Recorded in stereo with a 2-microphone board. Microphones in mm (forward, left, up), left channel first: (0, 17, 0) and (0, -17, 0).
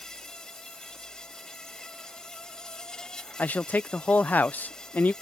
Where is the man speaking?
55° left (ahead or behind).